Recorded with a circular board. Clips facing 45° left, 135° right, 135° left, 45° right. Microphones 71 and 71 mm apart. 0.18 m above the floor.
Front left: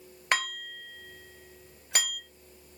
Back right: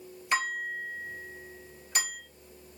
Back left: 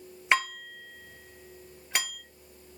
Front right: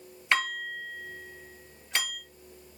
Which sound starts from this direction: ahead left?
Dishes clattering, at 0.3 s.